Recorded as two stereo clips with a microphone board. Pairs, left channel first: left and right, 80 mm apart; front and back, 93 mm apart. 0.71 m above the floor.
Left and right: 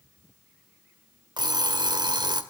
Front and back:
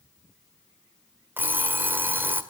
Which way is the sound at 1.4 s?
110° right.